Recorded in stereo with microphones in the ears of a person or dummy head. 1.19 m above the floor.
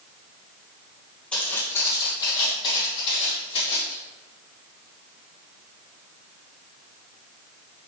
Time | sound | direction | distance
1.3 | footsteps | 5° left (ahead or behind) | 1.8 m